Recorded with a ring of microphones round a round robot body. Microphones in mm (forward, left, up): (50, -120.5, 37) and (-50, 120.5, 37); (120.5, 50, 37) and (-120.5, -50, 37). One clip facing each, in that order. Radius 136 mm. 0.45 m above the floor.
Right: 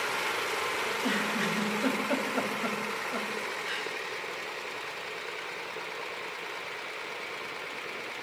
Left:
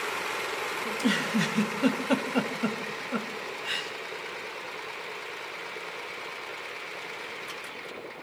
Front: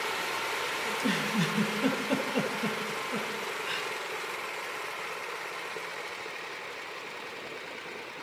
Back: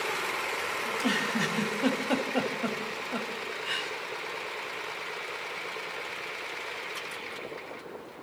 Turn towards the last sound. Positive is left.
turn(degrees=85)